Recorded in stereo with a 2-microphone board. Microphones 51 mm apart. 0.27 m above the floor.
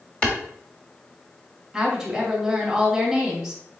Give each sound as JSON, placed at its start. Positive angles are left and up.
{"t": 0.2, "sound": "a clap", "side_deg": 25, "distance_m": 1.2}
{"t": 1.7, "sound": "a woman speaking", "side_deg": -5, "distance_m": 1.8}